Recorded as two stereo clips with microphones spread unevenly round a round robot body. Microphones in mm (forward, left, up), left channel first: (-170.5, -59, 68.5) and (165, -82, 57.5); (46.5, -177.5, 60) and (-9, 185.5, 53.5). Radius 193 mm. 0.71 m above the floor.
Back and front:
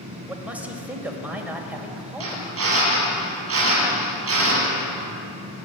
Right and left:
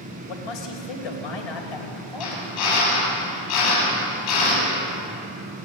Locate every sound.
0.3 s a man speaking: 90° right, 4 m
2.2 s a drill: 55° right, 9 m